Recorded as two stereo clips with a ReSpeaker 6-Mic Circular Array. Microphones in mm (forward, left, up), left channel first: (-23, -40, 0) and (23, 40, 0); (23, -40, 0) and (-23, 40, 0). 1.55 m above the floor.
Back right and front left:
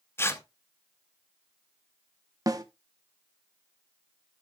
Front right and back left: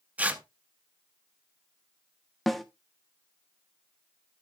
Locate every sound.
0.2 s tearing paper: 175° right, 0.8 m
2.5 s a snare drum: 30° left, 0.8 m